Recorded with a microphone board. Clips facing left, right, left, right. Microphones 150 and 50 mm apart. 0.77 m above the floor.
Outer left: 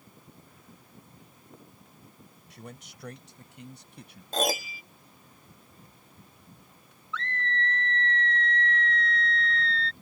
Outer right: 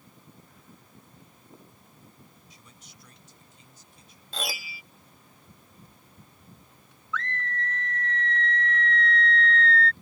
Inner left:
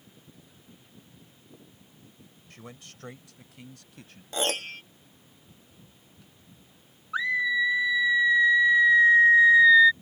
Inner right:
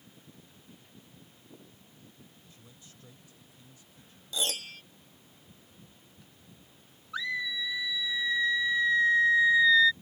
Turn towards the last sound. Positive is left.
turn(degrees=30)  # may be behind; listen again after turning